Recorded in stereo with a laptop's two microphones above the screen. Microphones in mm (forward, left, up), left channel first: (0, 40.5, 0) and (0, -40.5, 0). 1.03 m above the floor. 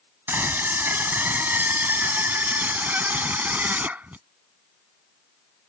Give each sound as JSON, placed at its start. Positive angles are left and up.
{"t": 0.3, "sound": "a scream", "side_deg": -25}